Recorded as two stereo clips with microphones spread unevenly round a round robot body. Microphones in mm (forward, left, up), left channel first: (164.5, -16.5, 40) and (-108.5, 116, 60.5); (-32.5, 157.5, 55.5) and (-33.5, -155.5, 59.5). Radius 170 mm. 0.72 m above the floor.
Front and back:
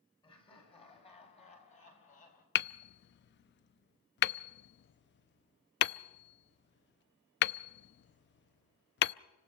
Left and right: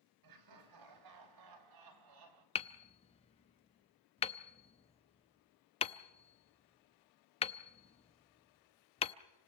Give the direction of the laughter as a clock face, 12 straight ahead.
3 o'clock.